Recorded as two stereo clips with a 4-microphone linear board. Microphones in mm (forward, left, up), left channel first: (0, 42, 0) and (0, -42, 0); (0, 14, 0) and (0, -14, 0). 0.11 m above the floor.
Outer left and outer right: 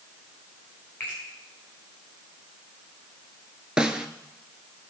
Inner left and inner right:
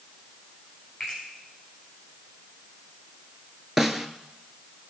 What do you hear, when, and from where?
1.0 s a finger snap: 15° left (ahead or behind), 8.5 m
3.8 s a snare drum: 10° right (ahead or behind), 0.8 m